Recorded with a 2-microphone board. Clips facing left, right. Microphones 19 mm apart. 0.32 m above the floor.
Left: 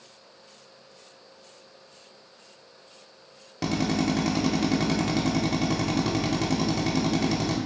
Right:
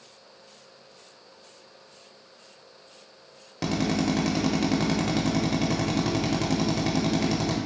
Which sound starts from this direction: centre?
A drill, at 3.6 s.